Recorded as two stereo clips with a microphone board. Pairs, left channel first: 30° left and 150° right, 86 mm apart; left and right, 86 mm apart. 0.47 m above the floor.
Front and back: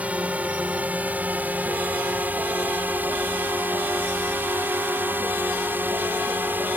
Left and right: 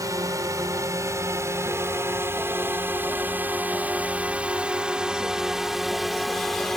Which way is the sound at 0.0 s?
85° right.